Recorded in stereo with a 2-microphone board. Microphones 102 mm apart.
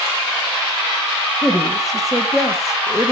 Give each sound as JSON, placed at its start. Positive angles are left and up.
{"t": 1.4, "sound": "a woman speaking", "side_deg": -5, "distance_m": 1.0}